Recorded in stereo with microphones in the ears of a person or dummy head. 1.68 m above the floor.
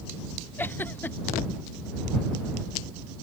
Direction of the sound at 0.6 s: 15° left (ahead or behind).